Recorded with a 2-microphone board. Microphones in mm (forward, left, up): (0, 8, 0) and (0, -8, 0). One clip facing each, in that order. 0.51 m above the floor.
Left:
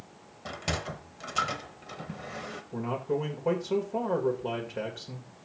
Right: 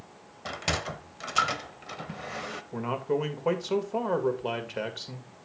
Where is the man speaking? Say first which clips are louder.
Right 2 dB; 30° right (ahead or behind), 1.9 m.